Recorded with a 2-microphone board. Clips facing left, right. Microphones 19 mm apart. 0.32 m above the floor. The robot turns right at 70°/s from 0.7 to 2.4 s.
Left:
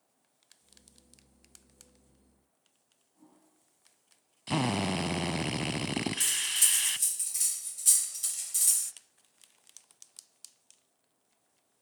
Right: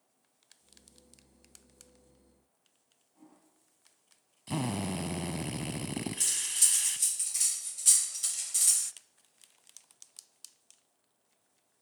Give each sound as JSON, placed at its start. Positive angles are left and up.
{"t": 3.1, "sound": "a toilet flushing", "side_deg": -35, "distance_m": 6.0}
{"t": 4.5, "sound": "a drill", "side_deg": 30, "distance_m": 0.8}
{"t": 6.2, "sound": "cutlery clinking", "side_deg": -10, "distance_m": 0.6}